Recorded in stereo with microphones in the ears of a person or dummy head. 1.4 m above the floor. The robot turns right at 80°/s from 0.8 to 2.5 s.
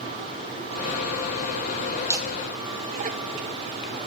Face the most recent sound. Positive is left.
turn(degrees=-40)  # may be behind; listen again after turning